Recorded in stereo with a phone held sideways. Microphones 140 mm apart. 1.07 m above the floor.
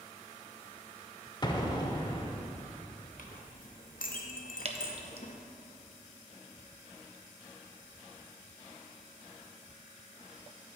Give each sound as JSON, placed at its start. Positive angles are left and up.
{"t": 1.4, "sound": "an explosion", "side_deg": 30, "distance_m": 0.8}
{"t": 3.2, "sound": "a clink", "side_deg": 80, "distance_m": 0.9}
{"t": 4.7, "sound": "dripping", "side_deg": -50, "distance_m": 0.6}